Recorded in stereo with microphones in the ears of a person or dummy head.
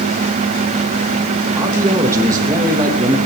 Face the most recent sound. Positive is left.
turn(degrees=-15)  # may be behind; listen again after turning